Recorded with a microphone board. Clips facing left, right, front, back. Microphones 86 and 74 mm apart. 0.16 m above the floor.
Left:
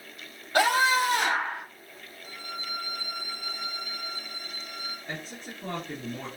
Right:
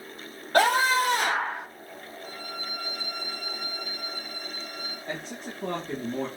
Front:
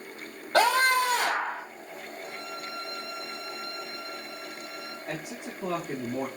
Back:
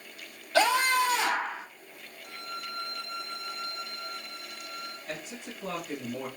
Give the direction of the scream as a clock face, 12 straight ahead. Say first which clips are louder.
Right 1 dB, front 2 dB; 2 o'clock.